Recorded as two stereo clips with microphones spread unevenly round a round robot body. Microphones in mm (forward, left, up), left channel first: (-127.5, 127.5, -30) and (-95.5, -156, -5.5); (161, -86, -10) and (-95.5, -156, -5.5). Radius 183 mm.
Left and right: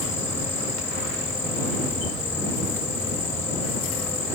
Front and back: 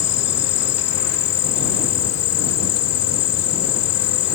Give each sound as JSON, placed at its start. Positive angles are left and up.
{"t": 0.0, "sound": "an insect", "azimuth_deg": 10}